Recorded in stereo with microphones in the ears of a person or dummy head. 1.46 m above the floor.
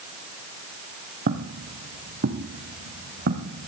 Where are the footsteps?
40° right (ahead or behind), 3 m; by 3.7 s 50° right (ahead or behind), 4.5 m.